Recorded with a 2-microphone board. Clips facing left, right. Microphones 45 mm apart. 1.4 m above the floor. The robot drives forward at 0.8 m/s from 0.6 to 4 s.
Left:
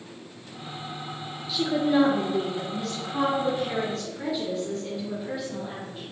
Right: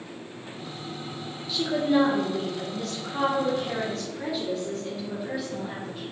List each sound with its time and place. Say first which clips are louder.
1.5 s a woman speaking: even; centre (ahead or behind), 0.8 m